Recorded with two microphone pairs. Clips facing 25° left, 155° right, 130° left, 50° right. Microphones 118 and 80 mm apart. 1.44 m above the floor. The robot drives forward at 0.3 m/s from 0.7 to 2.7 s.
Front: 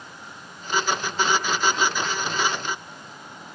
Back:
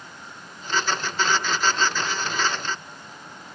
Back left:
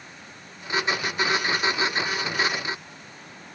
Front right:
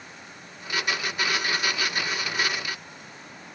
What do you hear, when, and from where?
Only background noise.